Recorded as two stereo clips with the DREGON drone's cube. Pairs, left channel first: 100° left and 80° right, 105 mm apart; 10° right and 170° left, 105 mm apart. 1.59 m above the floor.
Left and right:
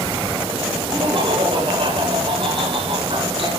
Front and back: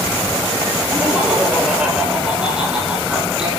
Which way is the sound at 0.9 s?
115° right.